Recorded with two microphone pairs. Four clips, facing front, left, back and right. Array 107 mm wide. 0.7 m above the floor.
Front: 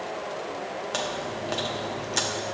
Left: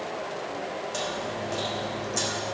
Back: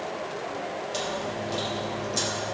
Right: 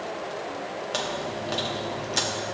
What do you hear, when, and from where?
0.9 s chewing: 30° right, 1.1 m